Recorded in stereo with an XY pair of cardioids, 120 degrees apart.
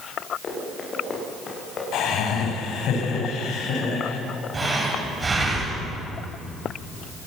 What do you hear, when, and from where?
0.4 s running footsteps: 40° left, 9.5 m
1.9 s laughter: 70° left, 8.5 m
4.5 s breathing: 25° right, 9.5 m